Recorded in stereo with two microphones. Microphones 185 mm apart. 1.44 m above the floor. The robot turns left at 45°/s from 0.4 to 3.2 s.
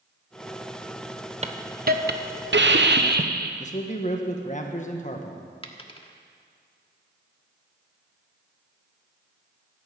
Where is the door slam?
No door slam in this recording.